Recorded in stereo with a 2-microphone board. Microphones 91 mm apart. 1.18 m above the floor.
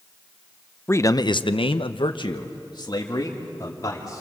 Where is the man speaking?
25° left (ahead or behind), 0.8 m; by 4.2 s 40° left (ahead or behind), 3 m.